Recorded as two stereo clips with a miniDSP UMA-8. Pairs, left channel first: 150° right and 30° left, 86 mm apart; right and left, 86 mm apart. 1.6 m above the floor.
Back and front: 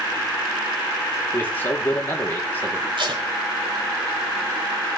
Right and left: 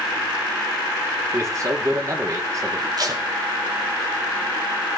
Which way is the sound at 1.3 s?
145° left.